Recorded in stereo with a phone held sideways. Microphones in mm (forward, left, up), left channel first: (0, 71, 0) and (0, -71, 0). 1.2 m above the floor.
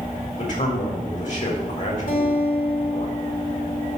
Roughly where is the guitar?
Left.